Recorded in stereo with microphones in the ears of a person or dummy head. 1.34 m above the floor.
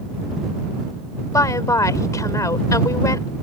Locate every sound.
1.3 s a woman speaking: 15° left (ahead or behind)